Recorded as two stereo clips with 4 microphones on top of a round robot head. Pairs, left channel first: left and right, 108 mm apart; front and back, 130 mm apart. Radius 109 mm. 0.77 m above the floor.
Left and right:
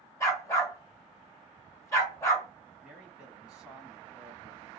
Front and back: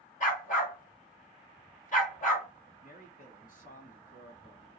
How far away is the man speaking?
About 1.7 m.